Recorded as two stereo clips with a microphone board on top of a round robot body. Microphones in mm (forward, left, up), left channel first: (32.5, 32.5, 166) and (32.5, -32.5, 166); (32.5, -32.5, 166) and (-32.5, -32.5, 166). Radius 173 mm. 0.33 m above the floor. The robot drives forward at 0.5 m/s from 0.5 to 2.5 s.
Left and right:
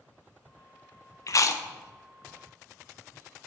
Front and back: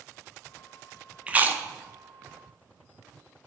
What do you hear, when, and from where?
1.3 s chewing: 110° left, 0.6 m; by 1.6 s 130° left, 0.7 m